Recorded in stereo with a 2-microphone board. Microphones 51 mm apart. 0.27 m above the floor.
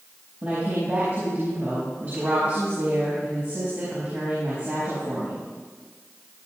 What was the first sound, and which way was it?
A woman speaking, 40° right (ahead or behind).